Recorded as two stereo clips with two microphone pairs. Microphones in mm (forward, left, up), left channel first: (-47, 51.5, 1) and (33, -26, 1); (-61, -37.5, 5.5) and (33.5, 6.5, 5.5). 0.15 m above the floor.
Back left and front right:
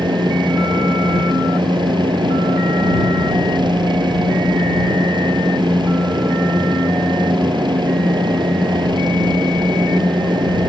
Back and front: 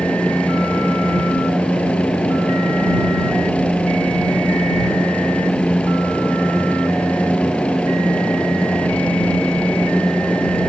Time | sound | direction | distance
0.0 | a helicopter | 80° right | ?